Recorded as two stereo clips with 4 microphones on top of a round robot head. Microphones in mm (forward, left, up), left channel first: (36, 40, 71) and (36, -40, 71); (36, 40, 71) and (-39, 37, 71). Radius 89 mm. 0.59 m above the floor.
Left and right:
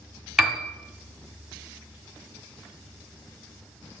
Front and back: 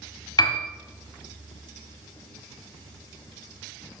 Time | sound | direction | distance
0.4 | a piano | 5° right | 1.4 m